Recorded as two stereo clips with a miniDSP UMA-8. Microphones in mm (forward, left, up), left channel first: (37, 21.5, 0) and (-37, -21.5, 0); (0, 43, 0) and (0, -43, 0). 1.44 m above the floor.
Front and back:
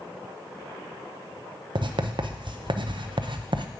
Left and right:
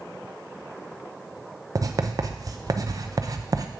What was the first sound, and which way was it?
Writing, 135° right.